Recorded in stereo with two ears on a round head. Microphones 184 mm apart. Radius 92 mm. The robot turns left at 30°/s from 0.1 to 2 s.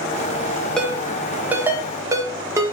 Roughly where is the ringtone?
Centre.